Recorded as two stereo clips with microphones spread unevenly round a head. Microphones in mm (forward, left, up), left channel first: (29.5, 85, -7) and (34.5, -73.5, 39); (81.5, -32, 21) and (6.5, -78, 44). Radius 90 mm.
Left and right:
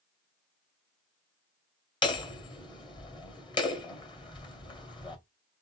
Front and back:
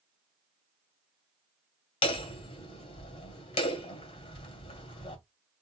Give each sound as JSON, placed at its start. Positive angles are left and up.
{"t": 2.0, "sound": "hammering", "azimuth_deg": 25, "distance_m": 1.8}